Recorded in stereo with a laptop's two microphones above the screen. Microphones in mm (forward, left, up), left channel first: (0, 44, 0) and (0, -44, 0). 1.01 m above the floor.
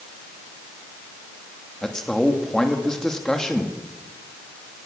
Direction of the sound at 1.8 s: 10° left (ahead or behind).